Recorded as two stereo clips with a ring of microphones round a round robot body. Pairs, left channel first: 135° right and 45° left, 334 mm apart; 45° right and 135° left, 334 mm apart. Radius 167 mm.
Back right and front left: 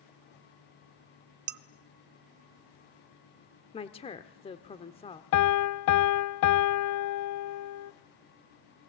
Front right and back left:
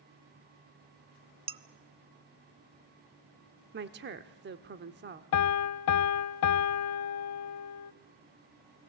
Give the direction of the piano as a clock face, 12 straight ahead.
3 o'clock.